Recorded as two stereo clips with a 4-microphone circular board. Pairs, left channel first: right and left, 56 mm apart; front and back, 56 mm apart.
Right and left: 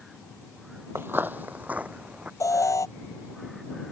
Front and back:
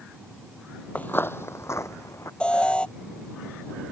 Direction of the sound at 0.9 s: 55° left.